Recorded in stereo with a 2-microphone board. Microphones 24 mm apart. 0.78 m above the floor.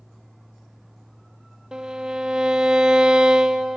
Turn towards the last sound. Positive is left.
turn(degrees=-35)  # may be behind; listen again after turning